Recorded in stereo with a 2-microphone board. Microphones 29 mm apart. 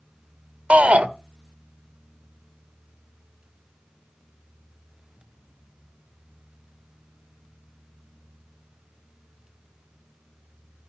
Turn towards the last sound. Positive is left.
turn(degrees=-55)  # may be behind; listen again after turning